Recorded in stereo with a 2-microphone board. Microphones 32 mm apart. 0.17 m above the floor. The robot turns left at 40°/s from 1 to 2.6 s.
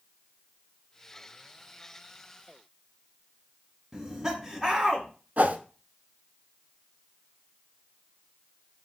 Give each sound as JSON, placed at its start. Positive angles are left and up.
{"t": 3.9, "sound": "laughter", "side_deg": -10, "distance_m": 1.1}
{"t": 5.4, "sound": "a whoosh", "side_deg": -60, "distance_m": 0.6}